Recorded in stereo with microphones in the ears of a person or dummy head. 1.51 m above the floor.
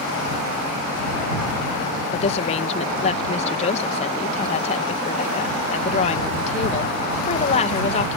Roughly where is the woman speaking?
Left.